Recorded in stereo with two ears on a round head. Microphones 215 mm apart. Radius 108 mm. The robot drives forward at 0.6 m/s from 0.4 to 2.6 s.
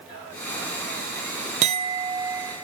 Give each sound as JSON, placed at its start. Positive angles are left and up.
{"t": 1.6, "sound": "a clink", "side_deg": -30}